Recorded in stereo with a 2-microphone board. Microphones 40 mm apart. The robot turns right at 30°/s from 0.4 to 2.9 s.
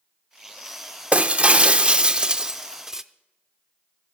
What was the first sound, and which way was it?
Breaking glass, 80° right.